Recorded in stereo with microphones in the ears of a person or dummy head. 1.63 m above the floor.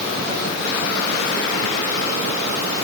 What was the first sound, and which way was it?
Only background noise.